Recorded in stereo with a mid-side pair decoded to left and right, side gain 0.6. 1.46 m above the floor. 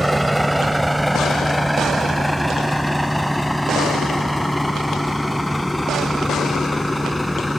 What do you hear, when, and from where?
0.0 s a vehicle: 5° right; by 7.6 s 5° left